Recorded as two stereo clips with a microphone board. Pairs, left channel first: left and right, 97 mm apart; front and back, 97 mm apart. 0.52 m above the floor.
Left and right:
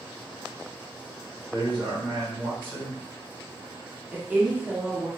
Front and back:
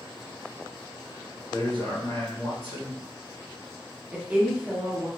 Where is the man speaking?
20° left, 1.7 m.